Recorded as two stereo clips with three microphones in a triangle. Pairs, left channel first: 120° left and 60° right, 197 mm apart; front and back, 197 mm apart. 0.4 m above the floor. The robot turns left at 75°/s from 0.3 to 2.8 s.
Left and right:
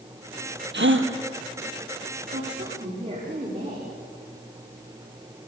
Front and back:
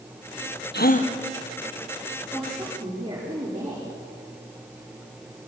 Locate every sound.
0.7 s a gasp: 30° right, 2 m; by 1.1 s 60° right, 2 m
2.3 s a woman speaking: 75° right, 8 m; by 4.0 s 115° right, 8 m